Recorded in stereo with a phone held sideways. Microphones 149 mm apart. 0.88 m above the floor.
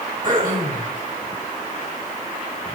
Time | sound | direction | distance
0.2 | throat clearing | 65° right (ahead or behind) | 4 m